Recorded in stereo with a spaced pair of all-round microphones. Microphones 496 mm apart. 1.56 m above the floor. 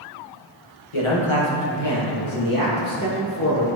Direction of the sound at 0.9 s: 75° left (ahead or behind).